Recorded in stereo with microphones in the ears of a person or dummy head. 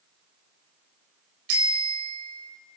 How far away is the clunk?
No clunk in this recording.